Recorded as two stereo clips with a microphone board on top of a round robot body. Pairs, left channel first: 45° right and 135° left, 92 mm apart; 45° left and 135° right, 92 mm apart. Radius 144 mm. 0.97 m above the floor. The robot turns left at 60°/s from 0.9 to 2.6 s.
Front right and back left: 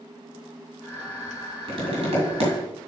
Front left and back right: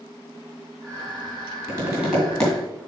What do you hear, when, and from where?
1.7 s tapping: 175° left, 2.5 m; by 2.5 s 125° left, 2.5 m